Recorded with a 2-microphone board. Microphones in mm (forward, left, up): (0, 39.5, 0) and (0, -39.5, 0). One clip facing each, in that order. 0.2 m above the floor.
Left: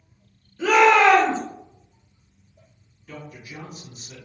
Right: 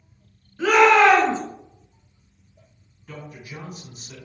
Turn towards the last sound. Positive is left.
turn(degrees=-45)  # may be behind; listen again after turning